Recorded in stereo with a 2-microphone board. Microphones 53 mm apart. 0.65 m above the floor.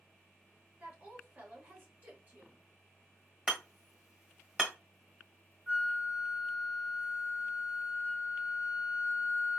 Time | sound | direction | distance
0.8 | a woman speaking | 30° right (ahead or behind) | 1.5 m
3.5 | hammering | 15° right (ahead or behind) | 1.2 m
5.7 | a flute | 25° right (ahead or behind) | 1.2 m